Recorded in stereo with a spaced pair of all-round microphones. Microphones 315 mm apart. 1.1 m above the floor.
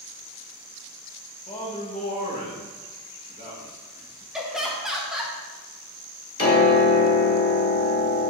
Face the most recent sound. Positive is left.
turn(degrees=45)  # may be behind; listen again after turning